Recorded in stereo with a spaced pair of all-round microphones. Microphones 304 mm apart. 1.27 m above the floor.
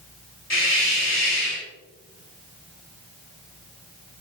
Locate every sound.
0.5 s a hiss: 60° left (ahead or behind), 4.5 m